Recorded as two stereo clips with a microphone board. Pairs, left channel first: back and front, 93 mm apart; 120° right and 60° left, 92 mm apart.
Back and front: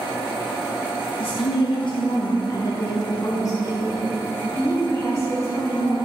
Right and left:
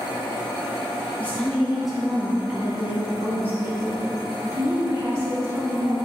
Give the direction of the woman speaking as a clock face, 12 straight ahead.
6 o'clock.